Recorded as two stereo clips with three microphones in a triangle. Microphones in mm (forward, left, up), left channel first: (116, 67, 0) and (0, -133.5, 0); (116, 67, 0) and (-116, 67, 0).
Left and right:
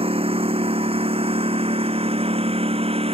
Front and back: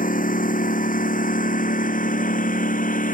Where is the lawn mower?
55° right.